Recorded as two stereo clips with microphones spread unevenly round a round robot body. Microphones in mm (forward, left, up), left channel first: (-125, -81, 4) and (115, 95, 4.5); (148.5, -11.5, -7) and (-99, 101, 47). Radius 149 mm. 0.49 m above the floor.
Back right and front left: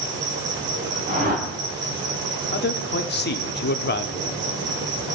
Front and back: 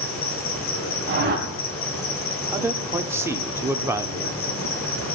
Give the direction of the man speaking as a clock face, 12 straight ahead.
4 o'clock.